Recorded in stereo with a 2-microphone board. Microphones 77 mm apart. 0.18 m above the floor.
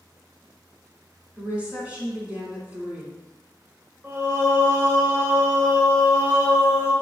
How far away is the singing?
About 1.9 m.